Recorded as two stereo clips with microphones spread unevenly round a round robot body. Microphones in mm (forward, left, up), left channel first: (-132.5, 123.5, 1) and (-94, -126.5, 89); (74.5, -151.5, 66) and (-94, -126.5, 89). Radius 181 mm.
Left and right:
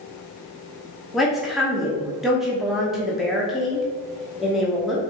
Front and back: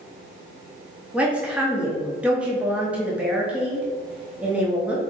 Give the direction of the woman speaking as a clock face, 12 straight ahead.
9 o'clock.